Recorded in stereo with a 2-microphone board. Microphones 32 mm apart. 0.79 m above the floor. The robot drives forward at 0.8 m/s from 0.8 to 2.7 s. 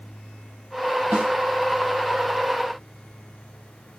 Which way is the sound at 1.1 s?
65° right (ahead or behind).